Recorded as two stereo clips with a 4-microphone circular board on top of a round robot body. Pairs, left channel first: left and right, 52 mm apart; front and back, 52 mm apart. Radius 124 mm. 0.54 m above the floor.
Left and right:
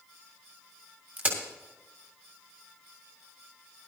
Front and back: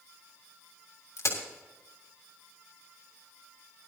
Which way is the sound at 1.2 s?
30° right.